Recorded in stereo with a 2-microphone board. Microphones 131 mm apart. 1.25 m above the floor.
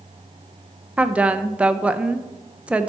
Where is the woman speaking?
10° right (ahead or behind), 0.6 m.